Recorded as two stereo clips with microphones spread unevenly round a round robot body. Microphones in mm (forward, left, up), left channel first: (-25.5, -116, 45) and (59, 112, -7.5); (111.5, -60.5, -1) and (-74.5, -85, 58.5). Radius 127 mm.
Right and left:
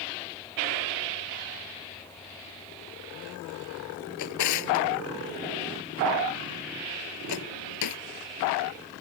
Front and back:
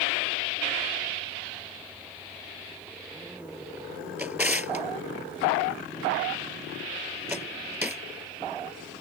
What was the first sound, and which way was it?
A drawer, 90° right.